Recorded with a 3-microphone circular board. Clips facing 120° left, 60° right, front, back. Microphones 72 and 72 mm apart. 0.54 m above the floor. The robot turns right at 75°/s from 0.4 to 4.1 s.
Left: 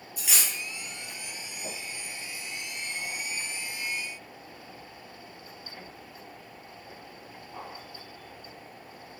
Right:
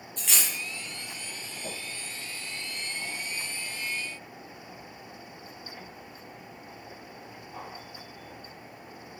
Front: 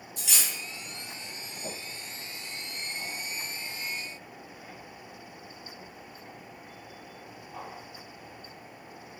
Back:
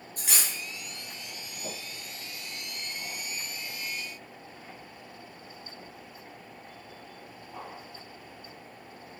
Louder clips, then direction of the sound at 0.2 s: Even, back 1 dB; 165° right.